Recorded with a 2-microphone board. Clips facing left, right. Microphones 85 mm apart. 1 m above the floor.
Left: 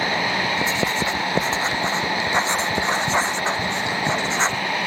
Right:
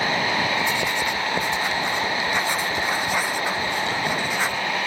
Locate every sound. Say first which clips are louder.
0.6 s writing: left 1 dB; 25° left (ahead or behind)